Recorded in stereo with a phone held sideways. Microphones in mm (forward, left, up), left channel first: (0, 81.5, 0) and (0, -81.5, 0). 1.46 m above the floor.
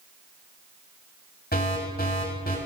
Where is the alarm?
75° left (ahead or behind), 6.5 m.